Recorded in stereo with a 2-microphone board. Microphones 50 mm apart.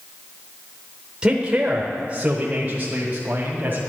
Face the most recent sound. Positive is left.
turn(degrees=-35)  # may be behind; listen again after turning